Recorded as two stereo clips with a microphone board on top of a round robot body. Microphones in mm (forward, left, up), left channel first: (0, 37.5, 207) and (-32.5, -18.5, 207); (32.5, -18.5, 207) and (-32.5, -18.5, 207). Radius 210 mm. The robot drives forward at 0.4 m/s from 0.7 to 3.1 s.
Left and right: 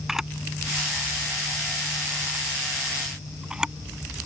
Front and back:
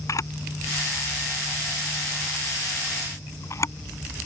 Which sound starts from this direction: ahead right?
A camera shutter, at 0.1 s.